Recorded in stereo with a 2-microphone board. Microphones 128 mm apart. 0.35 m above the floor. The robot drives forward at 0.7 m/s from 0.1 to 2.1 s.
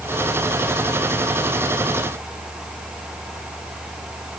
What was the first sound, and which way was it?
Only background noise.